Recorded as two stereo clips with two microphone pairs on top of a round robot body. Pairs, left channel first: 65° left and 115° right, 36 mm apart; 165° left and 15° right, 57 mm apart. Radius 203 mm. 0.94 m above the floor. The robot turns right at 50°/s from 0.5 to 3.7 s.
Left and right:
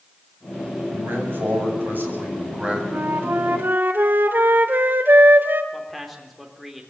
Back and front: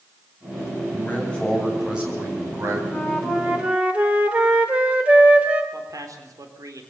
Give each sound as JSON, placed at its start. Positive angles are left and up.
{"t": 0.9, "sound": "a man speaking", "azimuth_deg": -140, "distance_m": 8.5}
{"t": 2.9, "sound": "a flute", "azimuth_deg": -125, "distance_m": 1.8}
{"t": 5.7, "sound": "a man speaking", "azimuth_deg": -25, "distance_m": 4.0}